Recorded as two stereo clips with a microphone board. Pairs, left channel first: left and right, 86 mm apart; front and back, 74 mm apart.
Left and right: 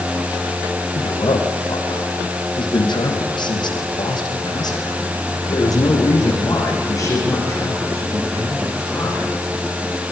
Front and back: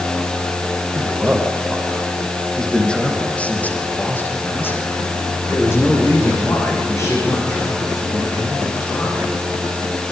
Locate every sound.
0.9 s a man speaking: 100° left, 5 m; by 9.4 s 35° left, 10 m